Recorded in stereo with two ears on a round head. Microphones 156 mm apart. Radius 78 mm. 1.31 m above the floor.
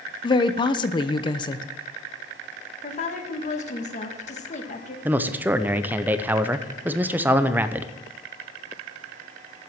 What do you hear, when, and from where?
0.2 s a woman speaking: 30° left (ahead or behind), 0.7 m
2.8 s a woman speaking: 45° left (ahead or behind), 1.7 m
5.0 s a man speaking: 10° right (ahead or behind), 0.6 m